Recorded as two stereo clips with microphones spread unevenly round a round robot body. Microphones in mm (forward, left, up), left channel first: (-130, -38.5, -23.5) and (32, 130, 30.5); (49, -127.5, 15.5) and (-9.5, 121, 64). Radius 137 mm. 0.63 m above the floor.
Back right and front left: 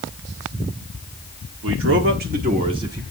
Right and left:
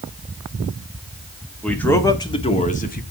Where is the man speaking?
5° left, 1.5 m; by 3.0 s 40° right, 1.4 m.